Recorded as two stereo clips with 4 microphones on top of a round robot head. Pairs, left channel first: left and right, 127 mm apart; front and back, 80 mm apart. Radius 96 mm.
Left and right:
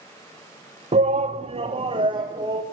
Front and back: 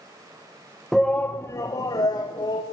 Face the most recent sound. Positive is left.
turn(degrees=-35)